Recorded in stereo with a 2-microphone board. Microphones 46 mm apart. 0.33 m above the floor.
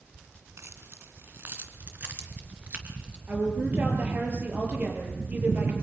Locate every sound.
0.6 s keys jangling: 70° right (ahead or behind), 1.9 m; by 3.2 s 25° right (ahead or behind), 3.5 m
3.3 s a woman speaking: 35° right (ahead or behind), 8.5 m